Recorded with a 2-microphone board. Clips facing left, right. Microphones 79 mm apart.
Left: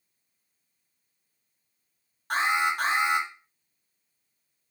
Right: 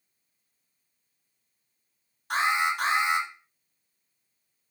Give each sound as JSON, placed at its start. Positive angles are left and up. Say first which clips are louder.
{"t": 2.3, "sound": "an alarm", "louder": "even", "side_deg": 45, "distance_m": 2.5}